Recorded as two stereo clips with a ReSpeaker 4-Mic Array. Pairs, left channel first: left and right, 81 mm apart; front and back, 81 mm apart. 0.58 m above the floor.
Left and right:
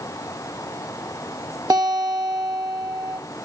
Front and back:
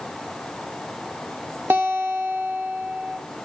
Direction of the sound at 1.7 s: 120° right.